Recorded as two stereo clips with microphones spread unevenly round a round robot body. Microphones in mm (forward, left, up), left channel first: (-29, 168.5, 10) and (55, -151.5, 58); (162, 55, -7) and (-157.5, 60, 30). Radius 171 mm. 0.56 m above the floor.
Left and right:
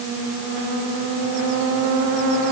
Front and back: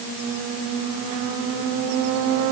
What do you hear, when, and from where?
Only background noise.